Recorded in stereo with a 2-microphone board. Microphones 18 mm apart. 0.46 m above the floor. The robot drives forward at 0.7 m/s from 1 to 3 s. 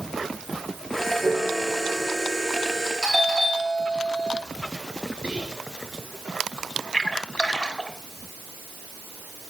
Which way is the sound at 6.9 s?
55° left (ahead or behind).